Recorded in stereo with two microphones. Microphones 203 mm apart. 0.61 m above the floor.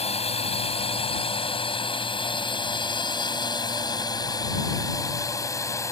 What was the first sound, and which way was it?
A drone, 30° left (ahead or behind).